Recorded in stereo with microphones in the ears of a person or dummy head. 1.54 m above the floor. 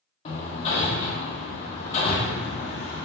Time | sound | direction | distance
0.2 | hammering | 35° left (ahead or behind) | 1.0 m